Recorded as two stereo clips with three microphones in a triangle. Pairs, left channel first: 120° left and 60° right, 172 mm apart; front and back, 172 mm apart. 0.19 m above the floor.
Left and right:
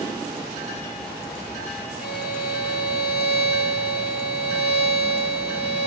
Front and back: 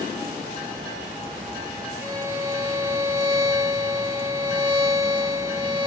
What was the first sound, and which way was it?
A violin, 105° left.